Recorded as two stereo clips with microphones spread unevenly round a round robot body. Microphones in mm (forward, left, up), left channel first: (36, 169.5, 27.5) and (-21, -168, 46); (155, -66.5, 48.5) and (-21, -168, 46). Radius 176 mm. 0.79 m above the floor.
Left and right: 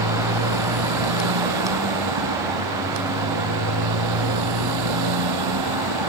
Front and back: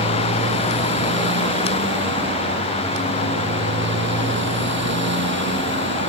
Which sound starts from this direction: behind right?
A motorcycle, at 0.0 s.